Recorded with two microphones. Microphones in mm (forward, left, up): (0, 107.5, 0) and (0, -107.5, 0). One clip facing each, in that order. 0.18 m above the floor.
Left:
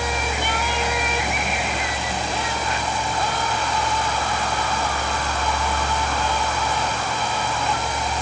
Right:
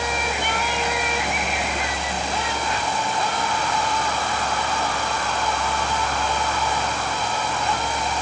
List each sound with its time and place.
Only background noise.